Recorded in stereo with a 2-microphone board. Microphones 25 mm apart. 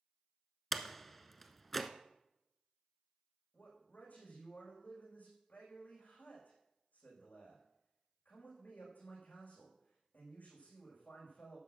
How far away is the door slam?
About 1.0 m.